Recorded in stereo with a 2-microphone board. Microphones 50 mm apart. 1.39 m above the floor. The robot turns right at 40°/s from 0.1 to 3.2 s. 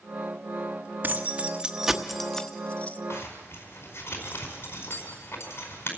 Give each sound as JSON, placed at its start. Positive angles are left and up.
{"t": 1.0, "sound": "keys jangling", "side_deg": -40, "distance_m": 1.1}
{"t": 3.1, "sound": "a zipper", "side_deg": 50, "distance_m": 5.0}